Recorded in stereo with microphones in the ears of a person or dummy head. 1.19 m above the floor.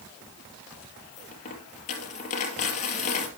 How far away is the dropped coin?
About 3 m.